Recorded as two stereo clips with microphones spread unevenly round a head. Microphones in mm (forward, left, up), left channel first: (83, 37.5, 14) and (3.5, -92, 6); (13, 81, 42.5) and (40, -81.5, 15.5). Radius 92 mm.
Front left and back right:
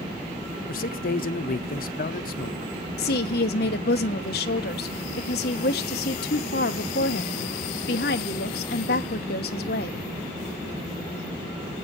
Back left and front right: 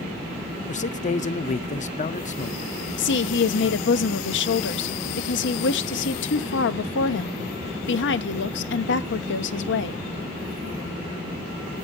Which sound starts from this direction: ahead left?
A man speaking, at 0.7 s.